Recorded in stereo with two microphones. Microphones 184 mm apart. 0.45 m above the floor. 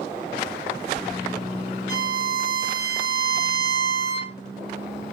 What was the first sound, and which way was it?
A violin, 55° right (ahead or behind).